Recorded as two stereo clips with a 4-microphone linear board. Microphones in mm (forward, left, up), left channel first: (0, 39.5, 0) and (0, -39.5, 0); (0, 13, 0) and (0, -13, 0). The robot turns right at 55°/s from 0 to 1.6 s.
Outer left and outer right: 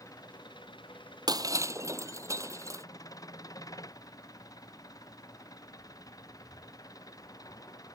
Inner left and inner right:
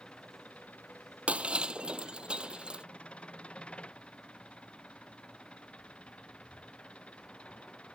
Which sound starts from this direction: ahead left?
An engine running, at 0.0 s.